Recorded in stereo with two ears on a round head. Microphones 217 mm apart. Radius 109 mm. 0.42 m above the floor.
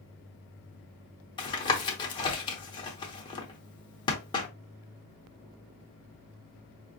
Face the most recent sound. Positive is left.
turn(degrees=20)  # may be behind; listen again after turning